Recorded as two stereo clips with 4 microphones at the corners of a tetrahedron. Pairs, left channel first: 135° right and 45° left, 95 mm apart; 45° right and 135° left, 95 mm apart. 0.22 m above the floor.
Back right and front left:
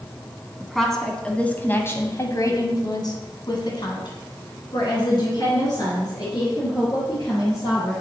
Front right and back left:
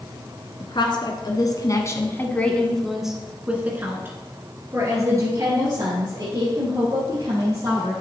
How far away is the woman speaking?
About 2.0 m.